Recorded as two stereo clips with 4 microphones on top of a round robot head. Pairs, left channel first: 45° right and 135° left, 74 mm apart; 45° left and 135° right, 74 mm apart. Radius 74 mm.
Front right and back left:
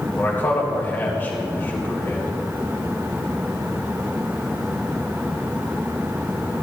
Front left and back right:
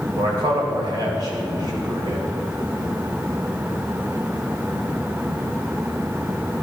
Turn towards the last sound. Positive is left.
turn(degrees=-110)